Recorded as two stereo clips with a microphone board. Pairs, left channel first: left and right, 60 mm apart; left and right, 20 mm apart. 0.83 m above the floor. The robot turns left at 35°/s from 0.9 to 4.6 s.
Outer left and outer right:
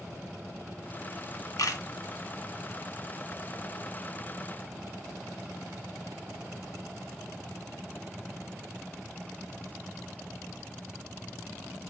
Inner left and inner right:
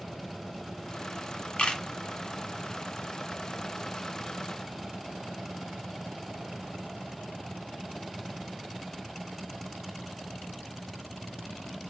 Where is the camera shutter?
70° left (ahead or behind), 1.5 m.